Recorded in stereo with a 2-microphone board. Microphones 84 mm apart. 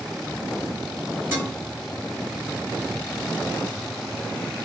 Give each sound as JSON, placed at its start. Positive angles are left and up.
{"t": 1.3, "sound": "dishes clattering", "side_deg": -25, "distance_m": 2.0}